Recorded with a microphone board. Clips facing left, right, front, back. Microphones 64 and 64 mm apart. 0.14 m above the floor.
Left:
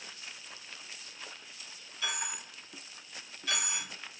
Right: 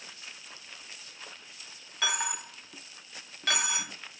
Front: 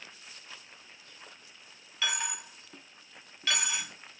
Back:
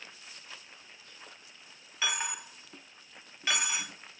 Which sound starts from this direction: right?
A dropped coin, at 2.0 s.